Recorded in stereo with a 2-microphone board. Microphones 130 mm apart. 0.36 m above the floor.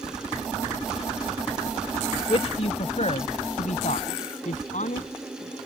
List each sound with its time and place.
2.3 s a man speaking: 50° left (ahead or behind); by 5.6 s 75° left (ahead or behind)